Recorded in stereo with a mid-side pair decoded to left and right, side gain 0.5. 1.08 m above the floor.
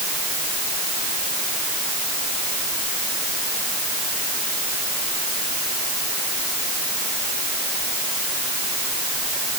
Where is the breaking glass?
I don't hear breaking glass.